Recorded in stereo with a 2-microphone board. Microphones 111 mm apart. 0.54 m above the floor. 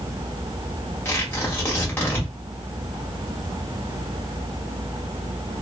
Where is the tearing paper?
20° left (ahead or behind), 1.4 m.